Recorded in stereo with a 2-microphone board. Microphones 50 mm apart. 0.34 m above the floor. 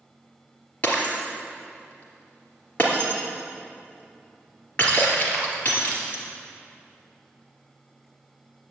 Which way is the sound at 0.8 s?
30° left (ahead or behind).